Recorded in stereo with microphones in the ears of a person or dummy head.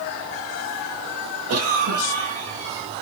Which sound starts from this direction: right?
A cough, at 1.5 s.